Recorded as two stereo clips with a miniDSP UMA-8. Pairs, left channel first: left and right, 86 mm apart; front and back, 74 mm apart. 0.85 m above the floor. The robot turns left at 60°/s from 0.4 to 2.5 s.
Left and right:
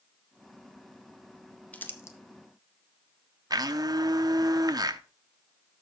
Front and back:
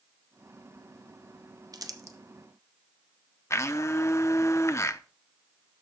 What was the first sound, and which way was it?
Crumpling, 160° left.